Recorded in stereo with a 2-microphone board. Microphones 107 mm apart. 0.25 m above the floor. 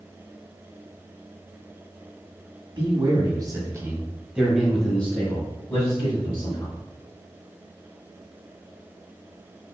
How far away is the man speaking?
About 1.7 m.